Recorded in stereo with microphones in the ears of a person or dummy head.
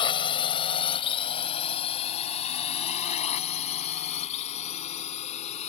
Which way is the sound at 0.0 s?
25° left (ahead or behind).